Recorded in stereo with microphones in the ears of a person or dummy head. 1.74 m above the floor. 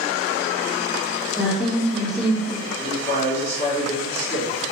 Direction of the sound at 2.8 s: 40° left (ahead or behind).